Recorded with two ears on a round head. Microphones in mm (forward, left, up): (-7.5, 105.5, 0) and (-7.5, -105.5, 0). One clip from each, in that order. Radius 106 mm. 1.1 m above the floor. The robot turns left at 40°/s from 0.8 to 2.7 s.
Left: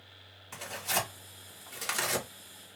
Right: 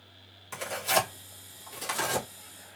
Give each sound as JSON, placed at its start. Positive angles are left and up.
{"t": 0.5, "sound": "tearing paper", "side_deg": -20, "distance_m": 1.5}